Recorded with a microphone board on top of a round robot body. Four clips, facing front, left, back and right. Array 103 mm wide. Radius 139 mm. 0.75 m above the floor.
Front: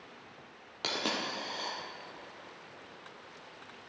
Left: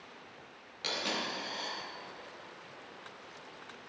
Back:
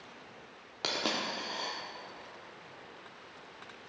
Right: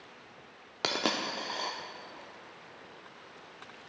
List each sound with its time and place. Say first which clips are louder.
0.8 s a dropped coin: right 5 dB, even; 95° right, 0.7 m